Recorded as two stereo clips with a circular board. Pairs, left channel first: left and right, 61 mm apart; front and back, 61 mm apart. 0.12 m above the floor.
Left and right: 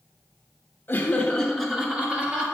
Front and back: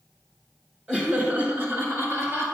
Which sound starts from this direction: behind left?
Laughter, at 0.9 s.